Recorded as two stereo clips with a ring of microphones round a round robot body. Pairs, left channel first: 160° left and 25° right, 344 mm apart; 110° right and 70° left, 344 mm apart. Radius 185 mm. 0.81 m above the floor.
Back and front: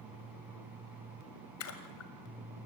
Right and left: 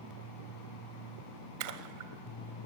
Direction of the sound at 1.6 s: 105° left.